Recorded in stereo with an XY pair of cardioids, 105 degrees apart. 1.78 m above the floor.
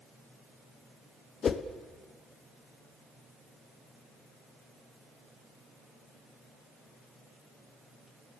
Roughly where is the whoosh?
Ahead left.